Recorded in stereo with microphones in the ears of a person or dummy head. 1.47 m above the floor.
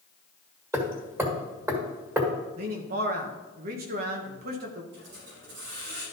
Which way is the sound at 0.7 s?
15° right (ahead or behind).